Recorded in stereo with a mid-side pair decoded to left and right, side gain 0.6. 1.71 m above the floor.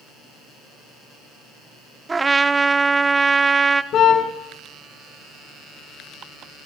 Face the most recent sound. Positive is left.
turn(degrees=50)